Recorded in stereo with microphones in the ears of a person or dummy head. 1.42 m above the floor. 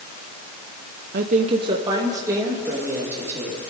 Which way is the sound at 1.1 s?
50° right (ahead or behind).